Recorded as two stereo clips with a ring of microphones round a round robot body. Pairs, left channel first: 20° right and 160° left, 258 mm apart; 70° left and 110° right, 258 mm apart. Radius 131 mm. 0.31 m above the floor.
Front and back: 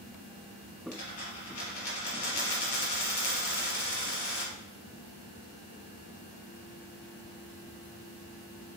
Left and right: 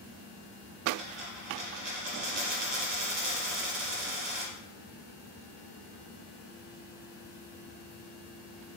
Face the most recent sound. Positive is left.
turn(degrees=-55)